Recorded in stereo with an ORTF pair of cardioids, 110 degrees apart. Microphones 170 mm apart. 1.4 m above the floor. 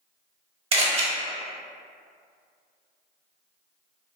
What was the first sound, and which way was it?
A camera shutter, 35° right.